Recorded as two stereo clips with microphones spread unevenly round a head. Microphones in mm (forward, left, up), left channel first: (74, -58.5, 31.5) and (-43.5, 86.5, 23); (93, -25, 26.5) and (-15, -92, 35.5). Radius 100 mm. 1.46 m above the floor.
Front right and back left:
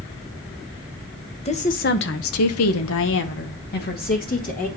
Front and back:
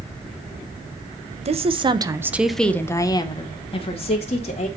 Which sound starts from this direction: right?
A woman speaking, at 1.4 s.